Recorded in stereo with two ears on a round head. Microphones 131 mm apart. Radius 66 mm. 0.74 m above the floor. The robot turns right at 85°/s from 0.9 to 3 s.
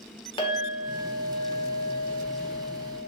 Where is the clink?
145° left, 1.7 m; by 3.1 s 35° right, 1.7 m.